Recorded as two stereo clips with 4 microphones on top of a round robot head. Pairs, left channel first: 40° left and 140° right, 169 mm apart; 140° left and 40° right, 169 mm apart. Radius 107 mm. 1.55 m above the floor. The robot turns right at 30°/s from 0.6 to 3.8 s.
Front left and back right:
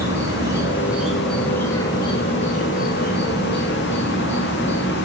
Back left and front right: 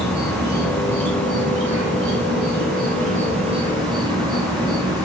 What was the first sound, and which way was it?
An insect, 65° right.